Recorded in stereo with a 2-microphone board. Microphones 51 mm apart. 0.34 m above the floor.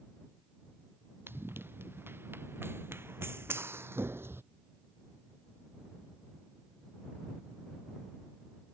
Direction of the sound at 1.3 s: 45° right (ahead or behind).